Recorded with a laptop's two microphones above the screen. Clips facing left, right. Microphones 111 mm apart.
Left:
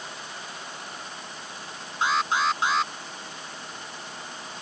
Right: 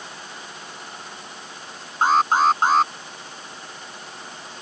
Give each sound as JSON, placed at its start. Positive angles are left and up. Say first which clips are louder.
{"t": 2.0, "sound": "an alarm", "louder": "right 7 dB", "side_deg": -45}